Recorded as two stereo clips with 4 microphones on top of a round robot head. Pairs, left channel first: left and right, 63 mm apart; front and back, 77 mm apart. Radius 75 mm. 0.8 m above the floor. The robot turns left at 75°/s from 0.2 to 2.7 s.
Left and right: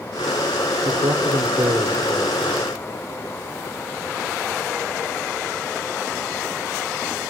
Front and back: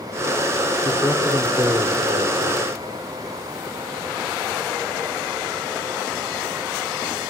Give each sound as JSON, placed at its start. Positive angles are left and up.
{"t": 0.8, "sound": "a man speaking", "azimuth_deg": -55, "distance_m": 2.5}